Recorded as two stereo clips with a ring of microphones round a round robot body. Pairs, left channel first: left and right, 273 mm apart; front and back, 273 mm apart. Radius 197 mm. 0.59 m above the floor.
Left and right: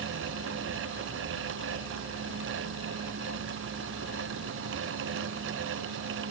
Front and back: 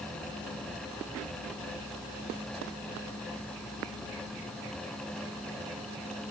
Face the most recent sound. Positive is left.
No sound to turn to.